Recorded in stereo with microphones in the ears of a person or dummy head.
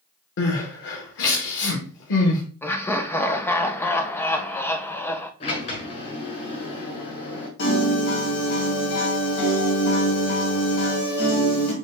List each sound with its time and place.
0.4 s crying: 65° left (ahead or behind), 1.4 m
2.6 s laughter: 10° left (ahead or behind), 0.6 m
5.4 s a sliding door: 35° left (ahead or behind), 1.7 m
7.6 s a piano: 55° left (ahead or behind), 1.9 m